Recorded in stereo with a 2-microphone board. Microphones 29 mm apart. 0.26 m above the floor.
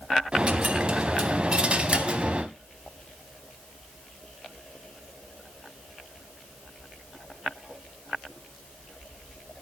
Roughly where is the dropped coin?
Right.